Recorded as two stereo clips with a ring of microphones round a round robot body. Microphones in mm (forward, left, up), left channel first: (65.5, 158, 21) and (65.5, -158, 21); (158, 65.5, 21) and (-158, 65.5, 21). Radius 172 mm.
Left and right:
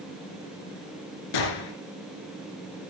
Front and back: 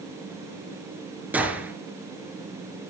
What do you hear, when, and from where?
1.3 s a gunshot: 95° left, 3.5 m